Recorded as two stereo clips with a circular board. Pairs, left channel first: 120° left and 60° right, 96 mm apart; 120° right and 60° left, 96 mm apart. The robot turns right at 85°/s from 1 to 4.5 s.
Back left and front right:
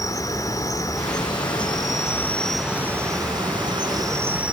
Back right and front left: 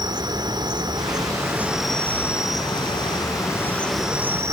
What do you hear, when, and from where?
0.0 s an insect: 80° left, 0.8 m; by 4.5 s 15° left, 0.8 m